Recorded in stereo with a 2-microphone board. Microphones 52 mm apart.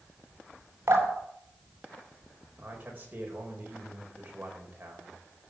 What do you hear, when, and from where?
0.9 s dripping: 60° right (ahead or behind), 3 m
2.6 s a man speaking: 35° right (ahead or behind), 4.5 m